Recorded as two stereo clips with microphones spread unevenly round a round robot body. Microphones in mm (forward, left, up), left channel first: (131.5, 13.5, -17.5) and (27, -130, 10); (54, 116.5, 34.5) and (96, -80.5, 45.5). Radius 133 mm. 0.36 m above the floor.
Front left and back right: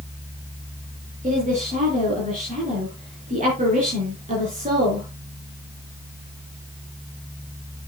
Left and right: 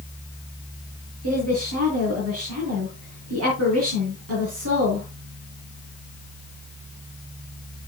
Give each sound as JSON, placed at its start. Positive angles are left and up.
{"t": 1.2, "sound": "a woman speaking", "azimuth_deg": -80, "distance_m": 5.0}